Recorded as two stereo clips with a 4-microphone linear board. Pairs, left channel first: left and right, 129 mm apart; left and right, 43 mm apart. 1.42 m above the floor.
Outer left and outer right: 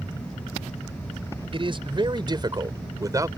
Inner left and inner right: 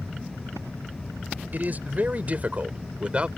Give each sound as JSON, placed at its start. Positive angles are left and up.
{"t": 1.5, "sound": "a man speaking", "side_deg": -45}